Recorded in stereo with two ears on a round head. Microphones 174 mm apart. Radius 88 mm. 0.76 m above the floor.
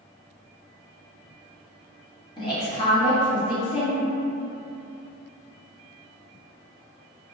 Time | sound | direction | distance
2.4 | a woman speaking | 25° left (ahead or behind) | 1.1 m